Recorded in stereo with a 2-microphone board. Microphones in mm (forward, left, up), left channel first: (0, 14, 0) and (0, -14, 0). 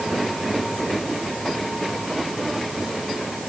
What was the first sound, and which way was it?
Only background noise.